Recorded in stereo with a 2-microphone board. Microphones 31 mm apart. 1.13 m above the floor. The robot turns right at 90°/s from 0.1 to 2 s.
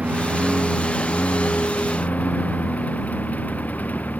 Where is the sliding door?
I don't hear a sliding door.